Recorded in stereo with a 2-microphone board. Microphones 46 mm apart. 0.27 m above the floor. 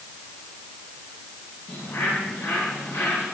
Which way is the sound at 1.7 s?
70° left (ahead or behind).